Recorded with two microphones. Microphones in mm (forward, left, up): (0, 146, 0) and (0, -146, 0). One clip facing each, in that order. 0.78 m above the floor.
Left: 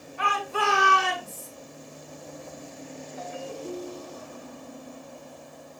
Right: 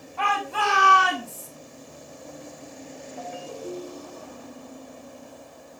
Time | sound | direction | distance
0.2 | a shout | 80° right | 7 m
3.2 | a ringtone | 65° right (ahead or behind) | 3.5 m